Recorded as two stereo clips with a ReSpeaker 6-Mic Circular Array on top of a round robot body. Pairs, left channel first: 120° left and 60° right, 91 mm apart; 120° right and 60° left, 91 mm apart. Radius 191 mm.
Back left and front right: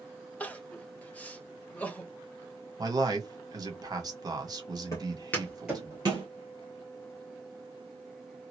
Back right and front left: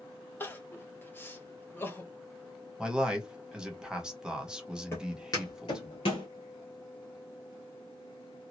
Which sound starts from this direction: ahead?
A man speaking, at 2.8 s.